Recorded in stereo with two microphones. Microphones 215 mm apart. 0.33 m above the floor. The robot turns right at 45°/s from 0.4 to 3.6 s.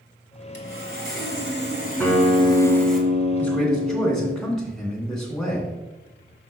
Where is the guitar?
170° left, 1.5 m; by 4.4 s 115° right, 1.5 m.